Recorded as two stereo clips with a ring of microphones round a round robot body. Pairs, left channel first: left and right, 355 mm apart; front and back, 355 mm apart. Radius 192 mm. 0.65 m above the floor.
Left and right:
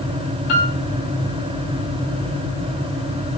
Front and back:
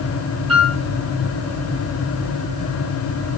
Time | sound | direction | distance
0.5 | a piano | 100° left | 4 m